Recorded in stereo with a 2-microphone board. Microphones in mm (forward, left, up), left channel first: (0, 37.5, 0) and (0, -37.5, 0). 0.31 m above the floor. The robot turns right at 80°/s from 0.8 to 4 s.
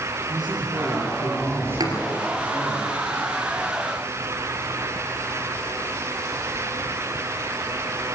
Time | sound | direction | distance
0.3 | a man speaking | 105° right | 8.5 m
1.8 | a thud | 65° right (ahead or behind) | 3 m